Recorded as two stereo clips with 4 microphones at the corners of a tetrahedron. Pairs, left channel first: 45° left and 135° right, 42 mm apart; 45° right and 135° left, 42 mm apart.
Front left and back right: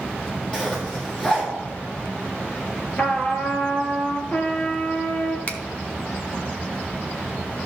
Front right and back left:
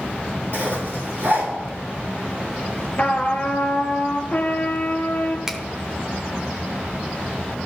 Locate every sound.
0.5 s a zipper: 115° left, 3.5 m
3.0 s a trumpet: straight ahead, 1.5 m
5.5 s a finger snap: 65° left, 0.8 m